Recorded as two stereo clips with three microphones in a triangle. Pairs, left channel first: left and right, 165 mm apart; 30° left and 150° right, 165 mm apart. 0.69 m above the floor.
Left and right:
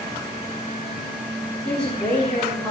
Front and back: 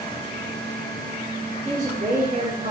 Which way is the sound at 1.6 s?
175° left.